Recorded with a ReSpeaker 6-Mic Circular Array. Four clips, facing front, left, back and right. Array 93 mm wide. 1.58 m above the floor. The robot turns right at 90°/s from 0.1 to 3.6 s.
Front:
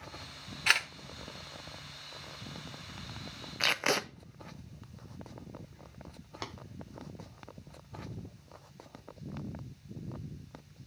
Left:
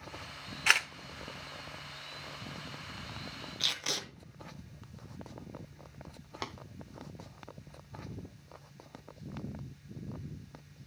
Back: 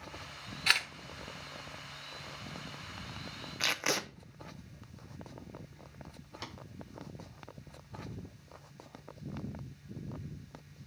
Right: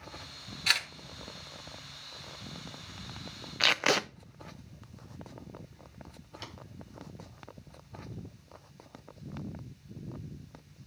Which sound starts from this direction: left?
A camera shutter, at 0.7 s.